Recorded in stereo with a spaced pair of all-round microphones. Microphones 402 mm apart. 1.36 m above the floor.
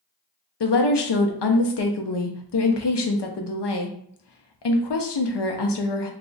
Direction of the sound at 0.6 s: 75° left (ahead or behind).